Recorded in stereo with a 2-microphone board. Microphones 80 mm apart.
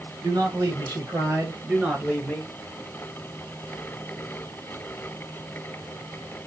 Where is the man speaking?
50° right (ahead or behind), 2 m; by 2.5 s 15° left (ahead or behind), 1.3 m.